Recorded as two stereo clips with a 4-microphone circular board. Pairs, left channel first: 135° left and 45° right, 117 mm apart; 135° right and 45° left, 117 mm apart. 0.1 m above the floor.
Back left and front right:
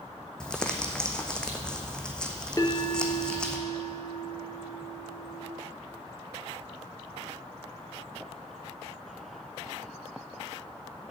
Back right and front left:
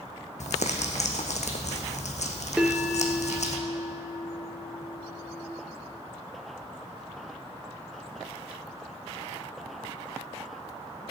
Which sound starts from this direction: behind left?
A bell, at 2.6 s.